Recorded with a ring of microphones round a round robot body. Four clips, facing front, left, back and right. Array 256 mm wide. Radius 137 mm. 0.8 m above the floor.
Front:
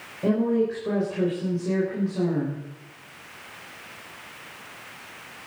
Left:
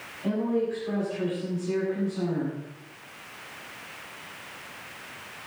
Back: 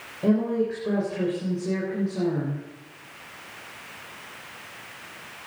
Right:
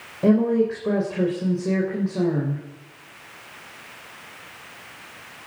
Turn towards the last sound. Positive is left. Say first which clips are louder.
# right 8 dB, front 1 dB
turn(degrees=-90)